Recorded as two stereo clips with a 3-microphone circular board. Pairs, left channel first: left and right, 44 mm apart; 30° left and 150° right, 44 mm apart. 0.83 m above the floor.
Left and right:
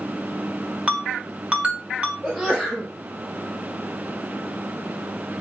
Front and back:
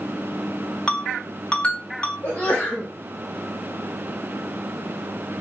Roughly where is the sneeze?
Ahead.